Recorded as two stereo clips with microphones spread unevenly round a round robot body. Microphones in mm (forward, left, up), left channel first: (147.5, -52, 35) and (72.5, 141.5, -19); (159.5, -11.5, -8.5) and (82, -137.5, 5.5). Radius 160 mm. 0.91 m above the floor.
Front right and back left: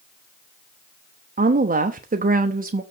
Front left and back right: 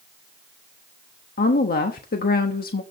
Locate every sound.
1.4 s a woman speaking: 70° left, 1.0 m